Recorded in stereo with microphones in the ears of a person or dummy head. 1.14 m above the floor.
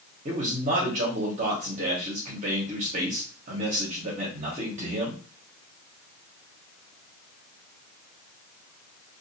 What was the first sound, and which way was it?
A man speaking, 40° right (ahead or behind).